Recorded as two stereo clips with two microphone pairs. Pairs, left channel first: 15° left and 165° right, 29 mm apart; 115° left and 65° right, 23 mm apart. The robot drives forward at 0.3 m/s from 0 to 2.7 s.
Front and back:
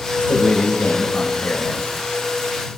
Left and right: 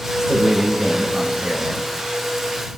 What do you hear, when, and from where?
0.2 s a man speaking: 5° left, 7.5 m